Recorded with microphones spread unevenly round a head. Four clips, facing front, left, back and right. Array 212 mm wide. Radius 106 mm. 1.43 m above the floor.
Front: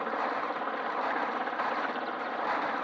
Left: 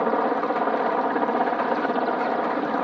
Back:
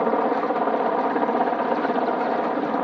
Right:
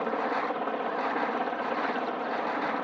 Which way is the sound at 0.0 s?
150° left.